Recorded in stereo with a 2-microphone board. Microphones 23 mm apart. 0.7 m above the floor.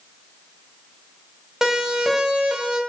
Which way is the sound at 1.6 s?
20° right (ahead or behind).